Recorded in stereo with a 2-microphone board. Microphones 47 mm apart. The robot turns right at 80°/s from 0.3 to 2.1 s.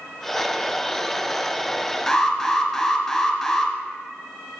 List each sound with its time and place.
2.1 s an alarm: 10° left (ahead or behind), 1.4 m